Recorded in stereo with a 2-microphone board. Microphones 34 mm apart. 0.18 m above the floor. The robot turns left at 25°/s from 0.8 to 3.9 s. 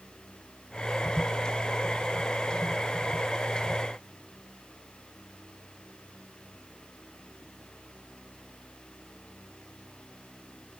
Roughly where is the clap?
No clap in this recording.